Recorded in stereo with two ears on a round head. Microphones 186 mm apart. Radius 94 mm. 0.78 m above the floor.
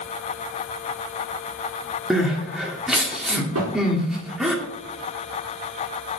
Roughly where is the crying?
Centre.